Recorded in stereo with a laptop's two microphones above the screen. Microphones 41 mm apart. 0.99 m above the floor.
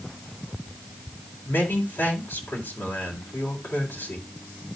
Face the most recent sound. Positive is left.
turn(degrees=65)  # may be behind; listen again after turning